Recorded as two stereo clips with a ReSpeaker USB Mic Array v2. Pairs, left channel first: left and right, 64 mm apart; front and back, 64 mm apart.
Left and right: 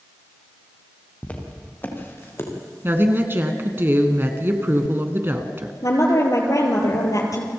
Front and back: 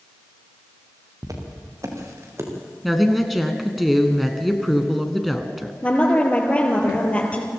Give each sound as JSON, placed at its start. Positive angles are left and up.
{"t": 1.2, "sound": "footsteps", "azimuth_deg": 160, "distance_m": 4.5}
{"t": 2.8, "sound": "a woman speaking", "azimuth_deg": -90, "distance_m": 2.0}
{"t": 5.8, "sound": "a woman speaking", "azimuth_deg": 65, "distance_m": 4.5}